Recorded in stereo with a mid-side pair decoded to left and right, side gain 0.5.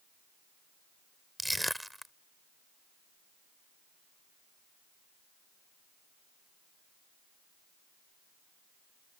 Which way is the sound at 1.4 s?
5° right.